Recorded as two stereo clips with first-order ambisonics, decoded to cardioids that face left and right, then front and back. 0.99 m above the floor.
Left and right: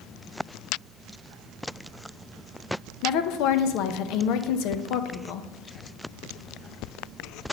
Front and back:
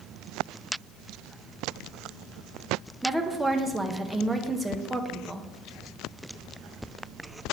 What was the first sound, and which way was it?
A woman speaking, 95° left.